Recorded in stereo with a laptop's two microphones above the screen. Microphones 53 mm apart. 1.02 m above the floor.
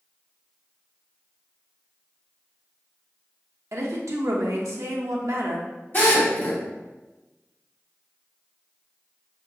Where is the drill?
40° left (ahead or behind), 1.5 m.